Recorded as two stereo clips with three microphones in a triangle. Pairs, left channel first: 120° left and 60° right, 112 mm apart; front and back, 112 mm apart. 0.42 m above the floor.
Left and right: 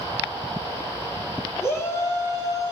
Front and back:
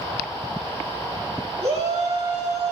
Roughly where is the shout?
Behind.